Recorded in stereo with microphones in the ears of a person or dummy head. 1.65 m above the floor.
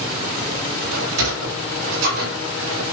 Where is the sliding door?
85° right, 4 m.